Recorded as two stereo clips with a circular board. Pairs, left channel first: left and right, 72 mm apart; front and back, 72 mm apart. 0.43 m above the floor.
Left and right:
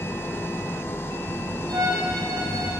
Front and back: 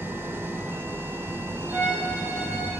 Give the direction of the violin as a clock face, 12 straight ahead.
4 o'clock.